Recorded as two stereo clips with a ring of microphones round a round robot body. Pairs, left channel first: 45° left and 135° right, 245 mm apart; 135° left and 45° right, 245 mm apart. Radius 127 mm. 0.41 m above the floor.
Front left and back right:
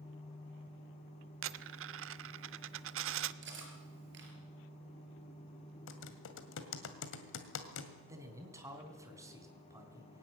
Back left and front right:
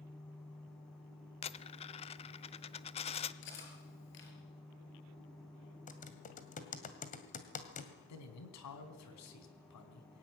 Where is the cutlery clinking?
Straight behind, 5 m.